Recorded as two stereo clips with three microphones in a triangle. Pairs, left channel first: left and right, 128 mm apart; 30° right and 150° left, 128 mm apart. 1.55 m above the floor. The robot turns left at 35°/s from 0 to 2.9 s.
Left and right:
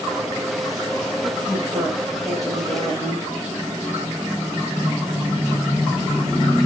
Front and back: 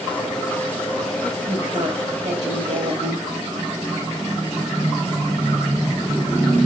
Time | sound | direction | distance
1.5 | a woman speaking | 145° right | 6 m